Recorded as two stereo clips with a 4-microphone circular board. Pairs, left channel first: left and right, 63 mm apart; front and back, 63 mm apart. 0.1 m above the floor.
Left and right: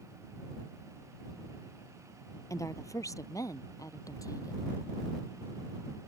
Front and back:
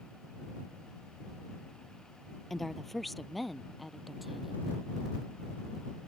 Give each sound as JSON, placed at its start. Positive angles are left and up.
{"t": 2.5, "sound": "a woman speaking", "azimuth_deg": 85}